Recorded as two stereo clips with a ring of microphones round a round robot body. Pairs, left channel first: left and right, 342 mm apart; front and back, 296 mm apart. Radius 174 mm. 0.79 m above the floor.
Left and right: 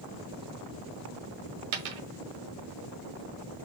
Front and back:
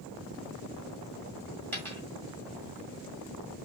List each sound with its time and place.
1.7 s a dropped coin: 85° right, 1.4 m